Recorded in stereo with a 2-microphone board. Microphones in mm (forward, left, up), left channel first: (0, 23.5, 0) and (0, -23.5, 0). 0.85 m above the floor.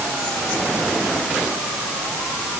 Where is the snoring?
I don't hear snoring.